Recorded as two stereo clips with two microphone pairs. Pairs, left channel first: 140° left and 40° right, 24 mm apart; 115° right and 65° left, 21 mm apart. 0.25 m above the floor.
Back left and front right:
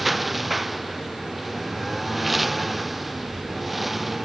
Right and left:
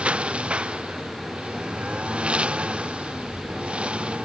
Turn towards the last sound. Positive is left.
turn(degrees=45)